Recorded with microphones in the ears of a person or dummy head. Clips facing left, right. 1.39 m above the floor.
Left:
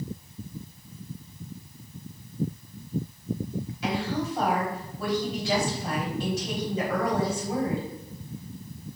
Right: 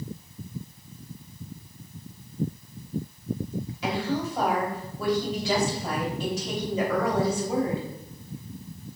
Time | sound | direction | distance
3.8 | a woman speaking | 75° right (ahead or behind) | 3.5 m